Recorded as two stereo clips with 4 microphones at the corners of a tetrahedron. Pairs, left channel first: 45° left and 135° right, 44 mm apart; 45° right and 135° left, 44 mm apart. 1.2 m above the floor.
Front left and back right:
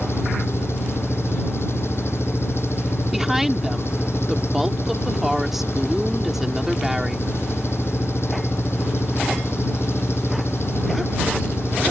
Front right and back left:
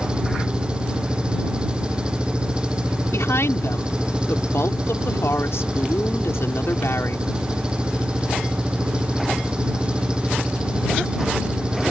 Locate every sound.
0.0 s an engine running: 65° left
3.1 s a woman speaking: 50° right